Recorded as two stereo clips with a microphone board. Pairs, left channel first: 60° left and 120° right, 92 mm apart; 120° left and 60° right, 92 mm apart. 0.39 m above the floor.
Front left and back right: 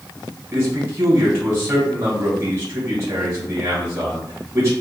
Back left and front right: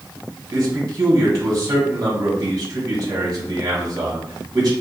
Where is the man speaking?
75° right, 1.6 m.